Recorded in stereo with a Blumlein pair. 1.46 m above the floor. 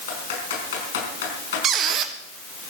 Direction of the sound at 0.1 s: 60° left.